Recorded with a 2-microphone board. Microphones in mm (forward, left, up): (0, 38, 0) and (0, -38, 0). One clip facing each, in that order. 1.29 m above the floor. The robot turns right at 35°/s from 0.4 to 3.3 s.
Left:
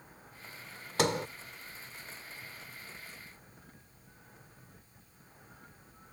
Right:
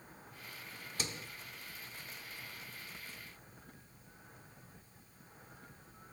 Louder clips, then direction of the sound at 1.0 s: Left 15 dB; 80° left.